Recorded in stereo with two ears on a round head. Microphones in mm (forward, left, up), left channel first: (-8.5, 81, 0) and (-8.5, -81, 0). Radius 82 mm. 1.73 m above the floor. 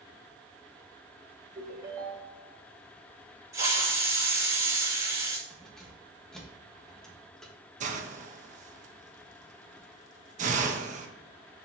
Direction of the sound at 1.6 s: 20° right (ahead or behind).